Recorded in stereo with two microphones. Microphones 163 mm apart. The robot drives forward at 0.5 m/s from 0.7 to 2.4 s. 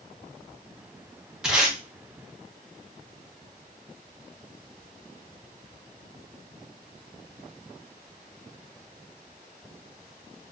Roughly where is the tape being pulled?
Centre.